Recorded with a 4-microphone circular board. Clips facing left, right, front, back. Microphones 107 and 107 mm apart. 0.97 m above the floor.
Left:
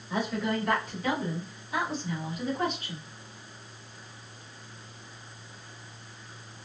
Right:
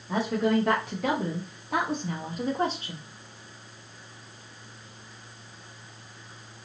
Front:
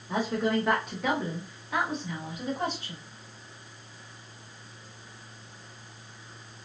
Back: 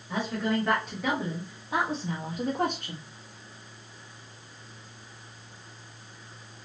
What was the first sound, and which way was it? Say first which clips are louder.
A woman speaking: right 5 dB, front 2 dB; 70° right.